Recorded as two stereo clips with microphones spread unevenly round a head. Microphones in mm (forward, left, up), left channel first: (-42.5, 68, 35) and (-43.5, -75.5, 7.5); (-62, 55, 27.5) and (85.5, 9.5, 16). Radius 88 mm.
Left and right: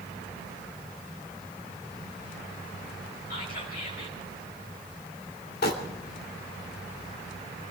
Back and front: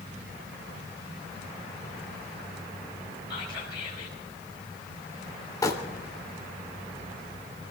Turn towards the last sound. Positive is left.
turn(degrees=95)